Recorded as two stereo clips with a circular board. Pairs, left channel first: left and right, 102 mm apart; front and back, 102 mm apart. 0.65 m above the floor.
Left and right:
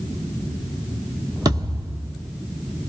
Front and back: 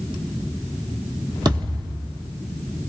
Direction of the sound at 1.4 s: 135° right.